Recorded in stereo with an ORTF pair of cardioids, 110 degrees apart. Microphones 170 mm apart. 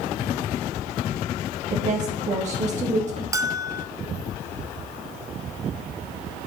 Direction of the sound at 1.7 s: 45° right.